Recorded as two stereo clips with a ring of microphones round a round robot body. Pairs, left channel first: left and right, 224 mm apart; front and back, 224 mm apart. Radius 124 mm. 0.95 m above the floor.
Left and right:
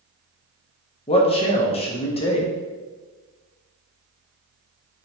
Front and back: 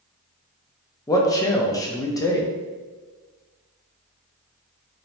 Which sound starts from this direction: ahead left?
A man speaking, at 1.1 s.